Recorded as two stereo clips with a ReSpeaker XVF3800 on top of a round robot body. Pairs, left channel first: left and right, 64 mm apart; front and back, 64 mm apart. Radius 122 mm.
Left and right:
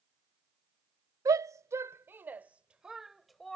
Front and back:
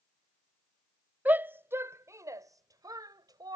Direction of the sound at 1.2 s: 120° right.